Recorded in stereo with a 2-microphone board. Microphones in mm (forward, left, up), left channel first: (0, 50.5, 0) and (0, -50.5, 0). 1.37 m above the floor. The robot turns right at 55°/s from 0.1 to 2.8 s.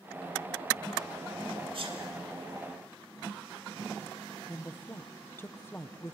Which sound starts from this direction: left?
A woman speaking, at 4.5 s.